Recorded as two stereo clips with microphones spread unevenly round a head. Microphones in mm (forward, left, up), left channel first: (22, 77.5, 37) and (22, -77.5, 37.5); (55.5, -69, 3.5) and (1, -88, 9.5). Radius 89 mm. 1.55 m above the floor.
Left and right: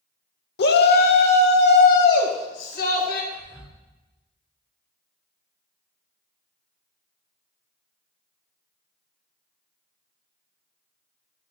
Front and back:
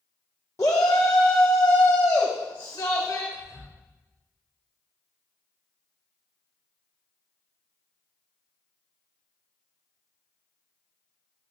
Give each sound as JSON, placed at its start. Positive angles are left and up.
{"t": 0.6, "sound": "a shout", "azimuth_deg": 80, "distance_m": 1.0}
{"t": 3.3, "sound": "whispering", "azimuth_deg": -10, "distance_m": 2.5}